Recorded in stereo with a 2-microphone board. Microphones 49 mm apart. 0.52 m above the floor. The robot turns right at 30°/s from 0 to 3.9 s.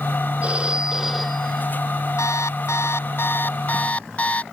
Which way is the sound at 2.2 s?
95° left.